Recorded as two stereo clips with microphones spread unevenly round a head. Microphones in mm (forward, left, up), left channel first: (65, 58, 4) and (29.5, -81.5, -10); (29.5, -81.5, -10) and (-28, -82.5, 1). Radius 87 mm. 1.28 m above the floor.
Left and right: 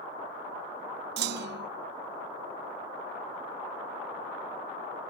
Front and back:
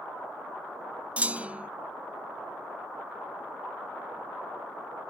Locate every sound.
1.2 s a clunk: 110° right